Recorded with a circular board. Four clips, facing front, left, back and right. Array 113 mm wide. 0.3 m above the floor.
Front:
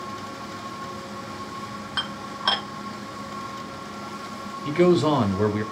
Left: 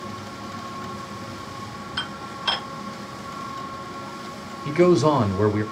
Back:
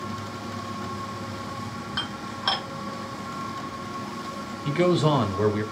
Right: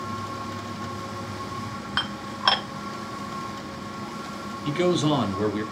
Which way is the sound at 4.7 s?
80° left.